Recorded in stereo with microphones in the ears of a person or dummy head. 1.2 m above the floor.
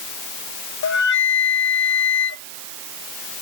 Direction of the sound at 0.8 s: 60° left (ahead or behind).